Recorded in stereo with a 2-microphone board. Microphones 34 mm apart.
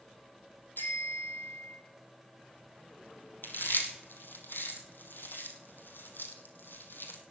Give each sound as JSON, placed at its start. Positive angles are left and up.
{"t": 0.8, "sound": "a bicycle bell", "side_deg": 70, "distance_m": 3.0}
{"t": 3.4, "sound": "chewing", "side_deg": 75, "distance_m": 1.9}